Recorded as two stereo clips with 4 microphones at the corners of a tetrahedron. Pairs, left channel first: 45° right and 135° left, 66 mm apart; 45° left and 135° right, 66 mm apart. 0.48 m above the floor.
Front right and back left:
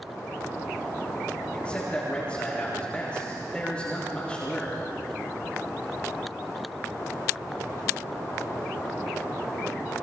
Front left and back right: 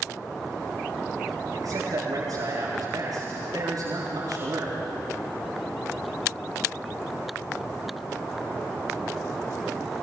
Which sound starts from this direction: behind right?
A man speaking, at 1.5 s.